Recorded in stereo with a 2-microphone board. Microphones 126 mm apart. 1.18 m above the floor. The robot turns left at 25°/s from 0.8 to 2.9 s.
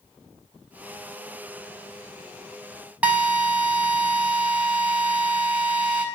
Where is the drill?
10° right (ahead or behind), 4 m.